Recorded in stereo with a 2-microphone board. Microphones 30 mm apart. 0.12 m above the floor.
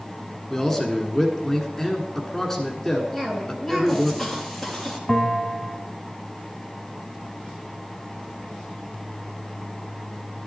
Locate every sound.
0.5 s a man speaking: 10° left (ahead or behind), 1.4 m
3.1 s a cough: centre (ahead or behind), 2.5 m
5.1 s a bell: 10° left (ahead or behind), 1.0 m